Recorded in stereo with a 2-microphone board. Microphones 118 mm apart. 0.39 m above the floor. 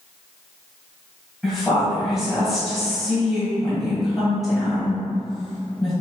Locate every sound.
1.4 s a woman speaking: centre (ahead or behind), 1.8 m